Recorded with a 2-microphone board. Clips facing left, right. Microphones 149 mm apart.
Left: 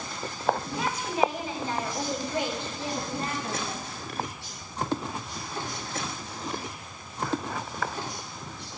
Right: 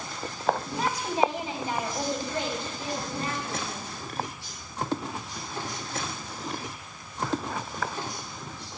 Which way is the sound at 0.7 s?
45° right (ahead or behind).